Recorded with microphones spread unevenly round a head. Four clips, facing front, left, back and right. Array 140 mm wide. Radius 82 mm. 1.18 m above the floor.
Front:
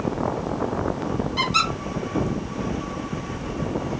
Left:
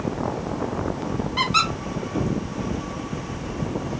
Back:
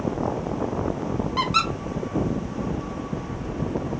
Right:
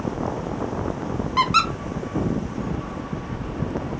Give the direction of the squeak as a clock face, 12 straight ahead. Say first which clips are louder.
Right 4 dB, back 1 dB; 4 o'clock.